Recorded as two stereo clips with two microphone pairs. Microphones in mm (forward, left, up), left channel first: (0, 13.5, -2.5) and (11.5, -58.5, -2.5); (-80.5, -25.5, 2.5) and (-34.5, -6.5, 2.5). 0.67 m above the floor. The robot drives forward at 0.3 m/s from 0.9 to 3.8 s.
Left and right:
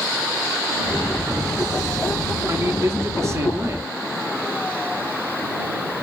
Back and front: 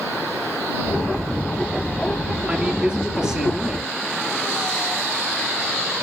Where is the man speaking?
45° right, 1.8 m; by 3.9 s 60° right, 1.6 m.